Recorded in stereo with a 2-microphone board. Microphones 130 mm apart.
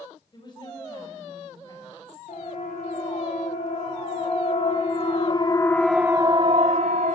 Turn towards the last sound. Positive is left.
turn(degrees=-65)  # may be behind; listen again after turning